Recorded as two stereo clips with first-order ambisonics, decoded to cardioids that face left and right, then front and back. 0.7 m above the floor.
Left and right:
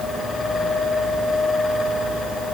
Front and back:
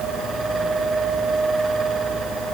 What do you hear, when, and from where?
Only background noise.